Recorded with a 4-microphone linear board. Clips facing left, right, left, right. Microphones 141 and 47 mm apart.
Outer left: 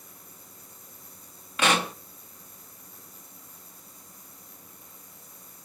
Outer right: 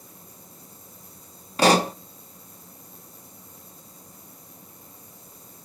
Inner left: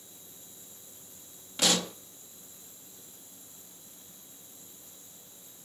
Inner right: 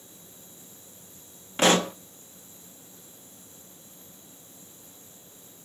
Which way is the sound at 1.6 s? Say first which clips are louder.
Outer right 7 dB, inner right 8 dB; 35° right (ahead or behind).